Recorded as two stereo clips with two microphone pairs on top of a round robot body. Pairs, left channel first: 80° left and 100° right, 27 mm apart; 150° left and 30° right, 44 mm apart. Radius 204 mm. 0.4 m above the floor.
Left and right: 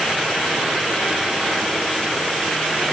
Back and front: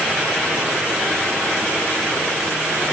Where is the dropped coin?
I don't hear a dropped coin.